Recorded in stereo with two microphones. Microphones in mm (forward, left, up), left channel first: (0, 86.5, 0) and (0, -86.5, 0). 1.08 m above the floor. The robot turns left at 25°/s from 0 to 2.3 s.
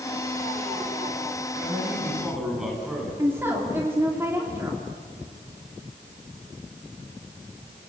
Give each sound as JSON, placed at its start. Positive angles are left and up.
{"t": 1.6, "sound": "a man speaking", "side_deg": -20, "distance_m": 9.5}
{"t": 3.2, "sound": "a woman speaking", "side_deg": -15, "distance_m": 3.0}